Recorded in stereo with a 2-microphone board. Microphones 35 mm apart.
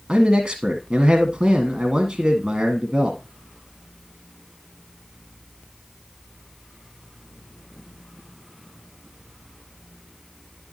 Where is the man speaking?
25° right (ahead or behind), 1.4 m.